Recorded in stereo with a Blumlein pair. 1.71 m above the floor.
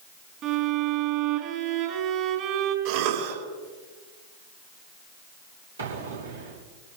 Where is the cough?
50° right, 5 m.